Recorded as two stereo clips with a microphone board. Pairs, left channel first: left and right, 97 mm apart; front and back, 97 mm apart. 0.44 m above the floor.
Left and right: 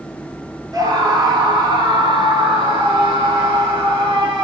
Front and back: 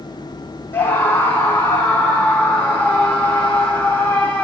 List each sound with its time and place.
0.7 s a scream: 60° right, 2.0 m; by 4.5 s 75° right, 3.5 m